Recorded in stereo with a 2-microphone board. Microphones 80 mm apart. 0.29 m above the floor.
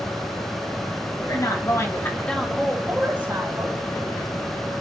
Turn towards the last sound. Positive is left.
turn(degrees=-35)  # may be behind; listen again after turning